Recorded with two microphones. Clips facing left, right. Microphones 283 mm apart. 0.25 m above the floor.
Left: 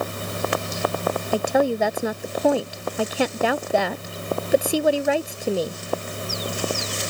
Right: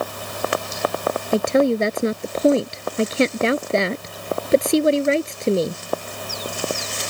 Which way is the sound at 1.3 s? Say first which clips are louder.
Right 4 dB; 25° right (ahead or behind).